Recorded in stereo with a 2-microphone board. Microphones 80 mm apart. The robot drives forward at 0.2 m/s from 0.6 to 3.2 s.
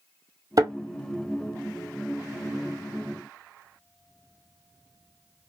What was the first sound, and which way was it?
A thud, 50° right (ahead or behind).